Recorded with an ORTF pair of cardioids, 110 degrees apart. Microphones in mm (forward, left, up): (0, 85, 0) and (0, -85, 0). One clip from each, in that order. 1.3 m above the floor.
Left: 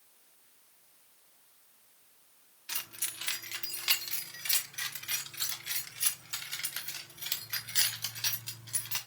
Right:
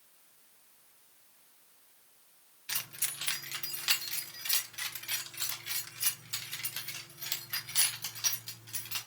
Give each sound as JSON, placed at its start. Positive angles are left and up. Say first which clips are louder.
{"t": 2.7, "sound": "keys jangling", "louder": "right 1 dB", "azimuth_deg": -5, "distance_m": 1.9}